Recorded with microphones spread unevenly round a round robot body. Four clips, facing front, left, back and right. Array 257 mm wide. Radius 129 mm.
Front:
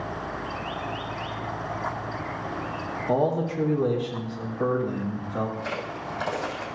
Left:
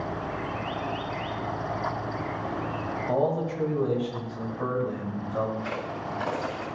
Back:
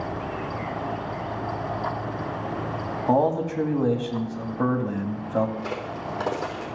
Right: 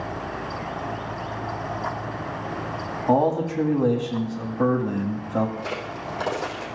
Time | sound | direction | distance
3.1 | a man speaking | 135° right | 1.7 m
5.6 | a crack | 160° right | 3 m